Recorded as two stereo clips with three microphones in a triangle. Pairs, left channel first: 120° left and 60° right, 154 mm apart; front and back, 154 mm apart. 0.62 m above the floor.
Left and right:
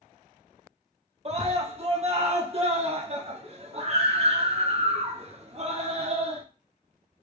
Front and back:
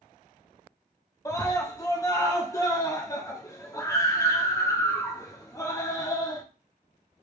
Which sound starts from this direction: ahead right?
A scream, at 1.2 s.